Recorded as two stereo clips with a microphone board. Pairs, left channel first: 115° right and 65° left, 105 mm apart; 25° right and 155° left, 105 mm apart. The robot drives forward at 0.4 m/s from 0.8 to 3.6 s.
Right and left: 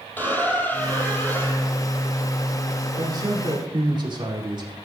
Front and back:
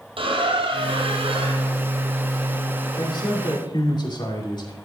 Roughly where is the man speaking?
Ahead.